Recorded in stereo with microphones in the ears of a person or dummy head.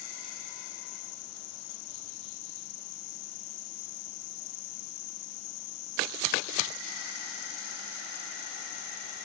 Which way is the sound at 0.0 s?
85° left.